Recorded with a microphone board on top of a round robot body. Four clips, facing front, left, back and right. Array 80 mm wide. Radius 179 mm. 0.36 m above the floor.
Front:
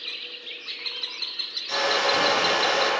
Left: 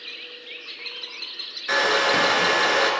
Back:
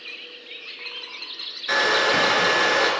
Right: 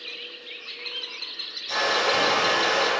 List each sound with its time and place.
1.7 s a hair dryer: 130° left, 2.5 m